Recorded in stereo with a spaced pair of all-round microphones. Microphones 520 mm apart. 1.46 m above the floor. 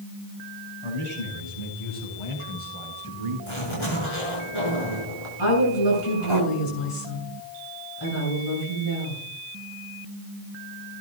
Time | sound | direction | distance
0.8 | a man speaking | 75° left (ahead or behind) | 7 m
3.5 | a zipper | 70° left (ahead or behind) | 6.5 m
5.4 | a woman speaking | 70° left (ahead or behind) | 8 m